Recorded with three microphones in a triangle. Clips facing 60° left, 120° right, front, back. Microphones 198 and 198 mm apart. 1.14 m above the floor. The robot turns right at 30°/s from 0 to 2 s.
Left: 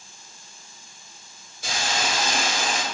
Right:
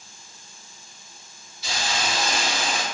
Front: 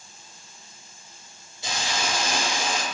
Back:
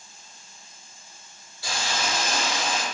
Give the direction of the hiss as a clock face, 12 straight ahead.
10 o'clock.